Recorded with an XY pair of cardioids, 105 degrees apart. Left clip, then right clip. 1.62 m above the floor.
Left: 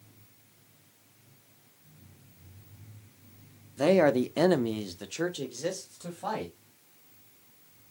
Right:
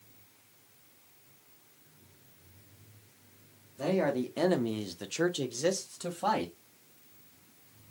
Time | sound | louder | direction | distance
3.8 | a man speaking | left 7 dB | 65° left | 0.7 m